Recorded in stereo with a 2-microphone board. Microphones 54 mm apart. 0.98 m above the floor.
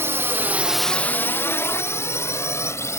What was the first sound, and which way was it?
A drone, 55° right (ahead or behind).